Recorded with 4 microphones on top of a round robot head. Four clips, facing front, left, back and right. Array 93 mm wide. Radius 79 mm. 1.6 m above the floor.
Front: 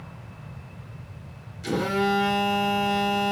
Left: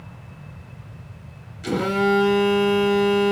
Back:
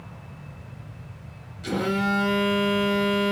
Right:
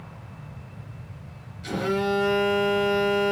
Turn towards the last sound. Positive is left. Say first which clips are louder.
# left 5 dB, front 1 dB
turn(degrees=80)